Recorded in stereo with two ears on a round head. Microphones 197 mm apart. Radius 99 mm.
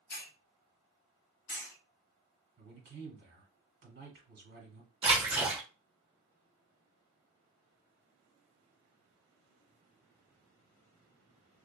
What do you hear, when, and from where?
0.1 s a hiss: 40° left (ahead or behind), 1.3 m
2.6 s a man speaking: 50° right (ahead or behind), 1.5 m
5.0 s a splash: 25° right (ahead or behind), 1.2 m